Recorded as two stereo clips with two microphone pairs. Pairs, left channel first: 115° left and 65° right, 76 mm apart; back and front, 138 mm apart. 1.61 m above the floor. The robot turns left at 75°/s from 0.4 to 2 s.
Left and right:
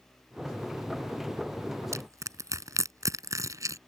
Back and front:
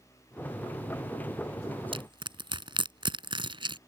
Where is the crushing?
35° right; by 3.8 s 40° right.